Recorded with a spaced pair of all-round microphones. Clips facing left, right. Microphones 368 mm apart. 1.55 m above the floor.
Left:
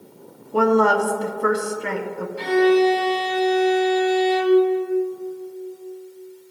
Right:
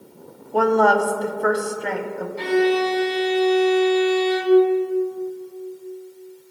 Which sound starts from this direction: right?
A violin, at 2.4 s.